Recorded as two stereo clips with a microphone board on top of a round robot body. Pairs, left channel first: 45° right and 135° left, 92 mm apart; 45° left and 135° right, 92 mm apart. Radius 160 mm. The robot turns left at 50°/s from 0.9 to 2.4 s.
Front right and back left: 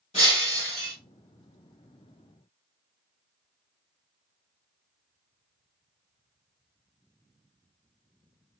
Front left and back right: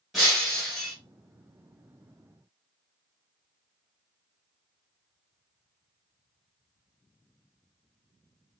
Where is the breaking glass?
45° right, 1.4 m; by 0.9 s 50° right, 1.4 m.